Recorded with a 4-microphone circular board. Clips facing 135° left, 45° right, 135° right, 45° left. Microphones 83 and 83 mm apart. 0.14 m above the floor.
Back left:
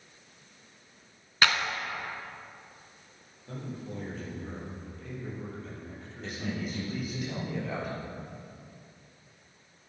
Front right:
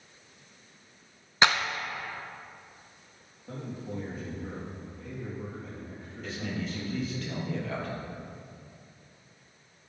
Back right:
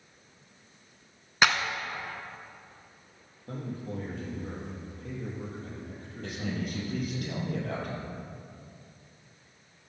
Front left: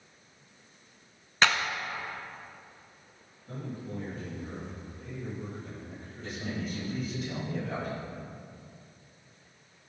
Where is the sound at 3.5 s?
125° right, 4 m.